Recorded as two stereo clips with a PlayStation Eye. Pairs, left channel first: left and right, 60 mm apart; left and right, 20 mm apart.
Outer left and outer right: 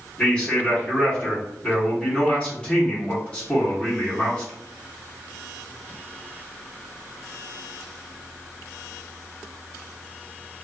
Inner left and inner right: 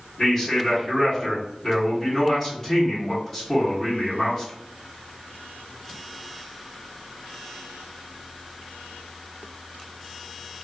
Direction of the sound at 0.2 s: 20° left (ahead or behind).